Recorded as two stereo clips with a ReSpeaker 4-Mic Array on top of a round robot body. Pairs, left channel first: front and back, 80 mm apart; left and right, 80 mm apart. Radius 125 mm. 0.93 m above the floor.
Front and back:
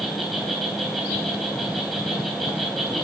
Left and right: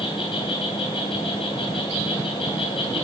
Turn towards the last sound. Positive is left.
turn(degrees=85)